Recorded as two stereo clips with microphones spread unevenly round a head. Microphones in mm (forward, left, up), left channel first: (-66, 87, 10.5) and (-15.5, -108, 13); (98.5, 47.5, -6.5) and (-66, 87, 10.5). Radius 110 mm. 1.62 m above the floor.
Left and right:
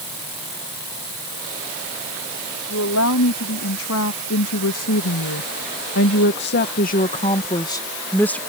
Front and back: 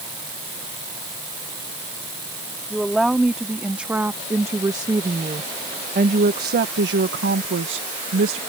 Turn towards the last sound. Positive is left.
turn(degrees=-170)